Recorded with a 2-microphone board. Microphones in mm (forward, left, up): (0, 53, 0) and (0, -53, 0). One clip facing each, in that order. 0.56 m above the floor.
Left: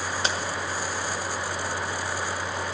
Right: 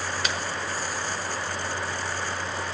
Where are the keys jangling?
30° left (ahead or behind), 1.4 m.